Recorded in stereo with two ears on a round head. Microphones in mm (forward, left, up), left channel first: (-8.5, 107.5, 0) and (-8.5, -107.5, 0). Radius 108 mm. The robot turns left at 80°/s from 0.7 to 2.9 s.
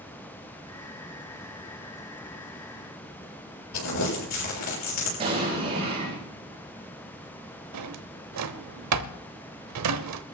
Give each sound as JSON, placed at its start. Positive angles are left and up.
{"t": 3.7, "sound": "crumpling", "side_deg": 75, "distance_m": 6.5}
{"t": 5.2, "sound": "an explosion", "side_deg": -25, "distance_m": 7.0}
{"t": 7.7, "sound": "a drawer", "side_deg": -75, "distance_m": 0.8}